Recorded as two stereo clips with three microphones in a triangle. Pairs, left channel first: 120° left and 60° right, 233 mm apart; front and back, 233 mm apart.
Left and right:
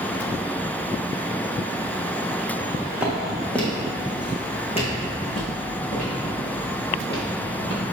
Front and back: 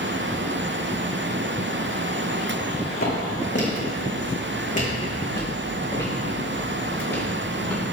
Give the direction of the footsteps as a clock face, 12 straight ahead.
11 o'clock.